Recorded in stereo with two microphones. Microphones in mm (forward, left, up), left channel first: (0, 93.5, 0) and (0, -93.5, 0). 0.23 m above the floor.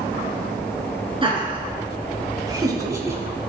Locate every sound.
1.2 s laughter: 30° right (ahead or behind), 2.5 m; by 3.2 s 15° right (ahead or behind), 1.6 m